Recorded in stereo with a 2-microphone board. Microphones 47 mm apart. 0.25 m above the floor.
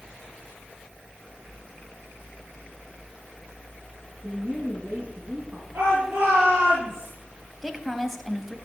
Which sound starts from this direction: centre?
A woman speaking, at 7.6 s.